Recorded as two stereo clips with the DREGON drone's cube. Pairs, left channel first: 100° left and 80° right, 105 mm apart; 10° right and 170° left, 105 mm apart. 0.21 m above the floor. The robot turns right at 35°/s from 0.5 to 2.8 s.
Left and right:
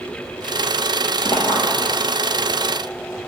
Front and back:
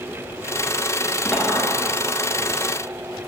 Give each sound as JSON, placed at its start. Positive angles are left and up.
{"t": 1.2, "sound": "a clink", "azimuth_deg": 75, "distance_m": 1.7}